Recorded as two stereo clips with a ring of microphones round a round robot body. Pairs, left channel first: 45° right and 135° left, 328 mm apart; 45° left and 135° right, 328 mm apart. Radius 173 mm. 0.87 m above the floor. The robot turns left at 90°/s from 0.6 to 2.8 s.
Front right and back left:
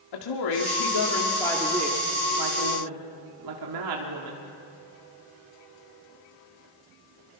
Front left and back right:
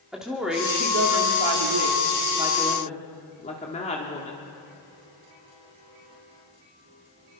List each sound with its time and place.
0.1 s a woman speaking: 45° right, 2 m; by 4.4 s 115° left, 2 m